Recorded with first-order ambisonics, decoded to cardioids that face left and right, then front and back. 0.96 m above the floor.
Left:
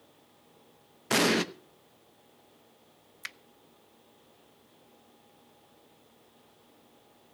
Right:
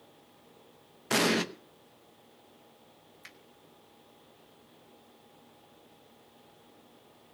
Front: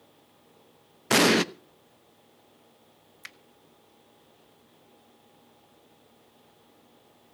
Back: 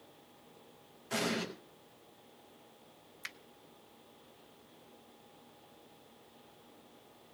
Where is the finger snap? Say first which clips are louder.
Left 11 dB, even; 90° left, 0.6 m.